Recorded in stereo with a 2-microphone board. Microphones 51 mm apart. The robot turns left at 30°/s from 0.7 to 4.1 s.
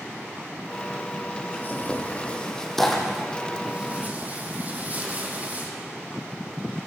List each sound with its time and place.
1.5 s tearing paper: 45° left (ahead or behind), 3.5 m; by 5.7 s 35° right (ahead or behind), 3.5 m